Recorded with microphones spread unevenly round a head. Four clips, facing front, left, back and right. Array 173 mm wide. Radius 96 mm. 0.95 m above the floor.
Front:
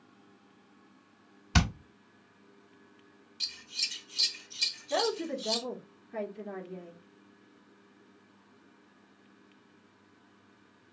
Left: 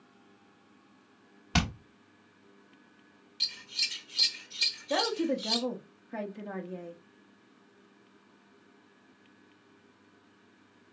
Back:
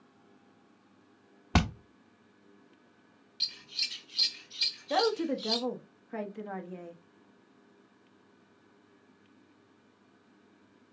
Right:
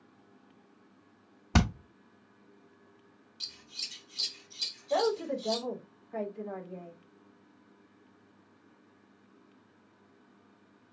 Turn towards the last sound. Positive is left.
turn(degrees=125)